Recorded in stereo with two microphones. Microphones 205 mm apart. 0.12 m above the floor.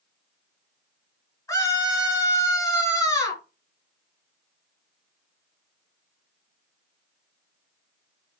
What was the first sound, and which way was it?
A scream, 15° left (ahead or behind).